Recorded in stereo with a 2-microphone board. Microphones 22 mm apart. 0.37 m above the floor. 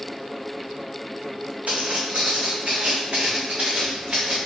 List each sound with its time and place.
1.7 s footsteps: 70° right (ahead or behind), 1.4 m; by 4.3 s 55° right (ahead or behind), 1.9 m